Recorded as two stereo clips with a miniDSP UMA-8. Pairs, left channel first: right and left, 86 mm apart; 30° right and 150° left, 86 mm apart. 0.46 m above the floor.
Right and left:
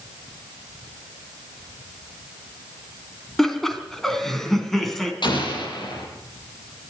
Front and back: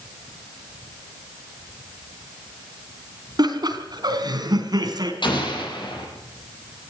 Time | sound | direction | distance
3.4 | laughter | 175° right | 3.5 m
5.2 | an explosion | 60° right | 7.5 m